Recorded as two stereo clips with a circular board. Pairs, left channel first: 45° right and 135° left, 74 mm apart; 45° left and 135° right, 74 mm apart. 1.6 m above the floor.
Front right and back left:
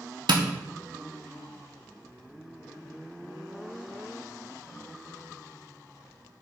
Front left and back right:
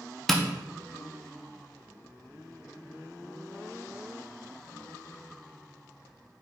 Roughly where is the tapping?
Behind left.